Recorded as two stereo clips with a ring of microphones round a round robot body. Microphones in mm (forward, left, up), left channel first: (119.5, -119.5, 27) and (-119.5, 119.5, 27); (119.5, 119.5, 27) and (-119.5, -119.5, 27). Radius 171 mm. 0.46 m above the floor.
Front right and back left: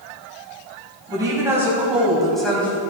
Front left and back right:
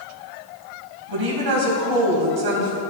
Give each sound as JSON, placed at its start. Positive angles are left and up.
{"t": 1.1, "sound": "a woman speaking", "azimuth_deg": -145, "distance_m": 3.5}